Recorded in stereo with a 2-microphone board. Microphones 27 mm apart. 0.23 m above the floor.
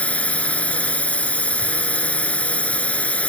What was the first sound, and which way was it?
A drone, 60° left (ahead or behind).